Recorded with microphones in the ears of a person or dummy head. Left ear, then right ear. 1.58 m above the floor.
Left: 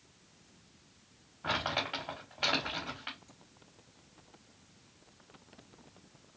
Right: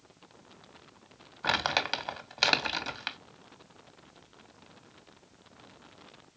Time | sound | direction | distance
1.4 | crumpling | 60° right (ahead or behind) | 0.7 m